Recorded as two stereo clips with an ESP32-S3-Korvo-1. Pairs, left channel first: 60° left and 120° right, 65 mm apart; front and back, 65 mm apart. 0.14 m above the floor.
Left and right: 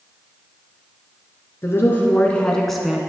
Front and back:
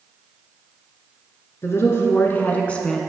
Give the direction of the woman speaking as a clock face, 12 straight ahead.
11 o'clock.